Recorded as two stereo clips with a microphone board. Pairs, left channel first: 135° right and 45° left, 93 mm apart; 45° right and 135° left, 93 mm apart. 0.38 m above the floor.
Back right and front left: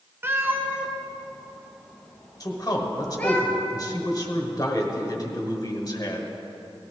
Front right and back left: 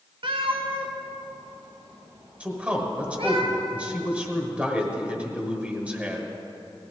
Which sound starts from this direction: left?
A cat meowing, at 0.2 s.